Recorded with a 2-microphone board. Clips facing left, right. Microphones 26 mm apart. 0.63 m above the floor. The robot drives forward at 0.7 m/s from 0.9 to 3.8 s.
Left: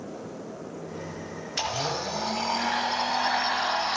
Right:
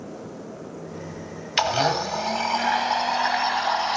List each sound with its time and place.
1.6 s a blender: 85° right, 1.5 m; by 4.0 s 45° right (ahead or behind), 2 m